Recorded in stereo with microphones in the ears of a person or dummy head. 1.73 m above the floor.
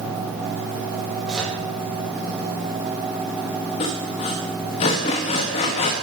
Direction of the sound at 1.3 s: Centre (ahead or behind).